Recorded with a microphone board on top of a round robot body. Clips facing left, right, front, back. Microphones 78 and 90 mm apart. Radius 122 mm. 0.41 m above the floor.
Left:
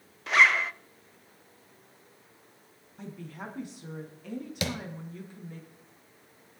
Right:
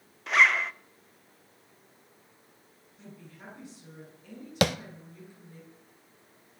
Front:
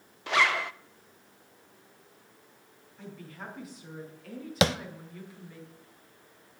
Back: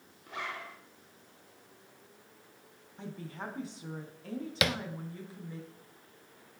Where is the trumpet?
No trumpet in this recording.